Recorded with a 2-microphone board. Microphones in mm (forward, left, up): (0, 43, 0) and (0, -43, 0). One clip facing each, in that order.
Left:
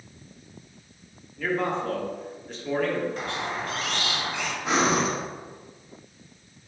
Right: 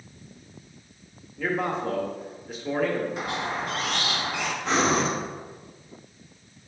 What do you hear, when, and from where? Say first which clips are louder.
1.4 s a man speaking: even; 5° right (ahead or behind), 0.7 m
3.2 s a squeak: right 1 dB; 5° right (ahead or behind), 0.8 m
4.7 s breathing: even; 5° left (ahead or behind), 0.9 m